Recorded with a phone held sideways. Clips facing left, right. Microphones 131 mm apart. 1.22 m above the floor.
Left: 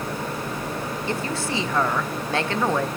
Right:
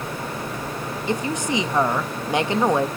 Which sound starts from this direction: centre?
A woman speaking, at 1.1 s.